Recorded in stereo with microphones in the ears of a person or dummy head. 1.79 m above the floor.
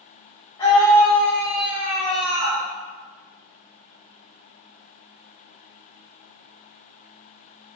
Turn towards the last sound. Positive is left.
turn(degrees=-45)  # may be behind; listen again after turning